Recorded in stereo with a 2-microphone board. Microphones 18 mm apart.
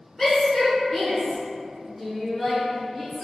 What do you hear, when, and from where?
0.2 s a shout: centre (ahead or behind), 1.6 m; by 3.2 s 20° right (ahead or behind), 1.5 m